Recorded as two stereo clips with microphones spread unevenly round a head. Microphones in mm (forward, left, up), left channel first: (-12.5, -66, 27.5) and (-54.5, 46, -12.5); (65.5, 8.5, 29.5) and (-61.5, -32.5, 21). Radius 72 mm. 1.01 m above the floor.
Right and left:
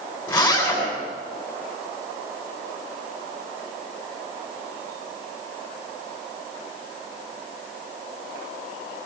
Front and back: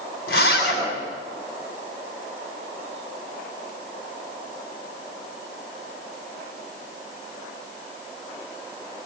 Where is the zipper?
10° left, 9.5 m.